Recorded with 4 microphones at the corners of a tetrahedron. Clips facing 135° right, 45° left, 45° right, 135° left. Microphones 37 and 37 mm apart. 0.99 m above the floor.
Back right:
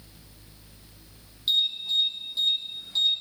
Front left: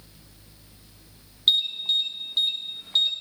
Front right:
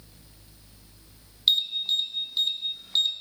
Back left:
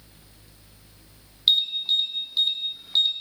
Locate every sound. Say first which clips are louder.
1.5 s an alarm: front left 3 dB, back left 2 dB; 60° left, 1.7 m